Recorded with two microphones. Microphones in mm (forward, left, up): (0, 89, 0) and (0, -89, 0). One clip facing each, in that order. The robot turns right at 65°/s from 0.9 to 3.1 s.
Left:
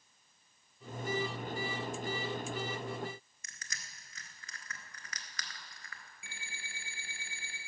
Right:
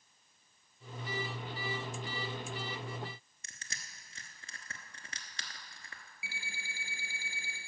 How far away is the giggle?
I don't hear a giggle.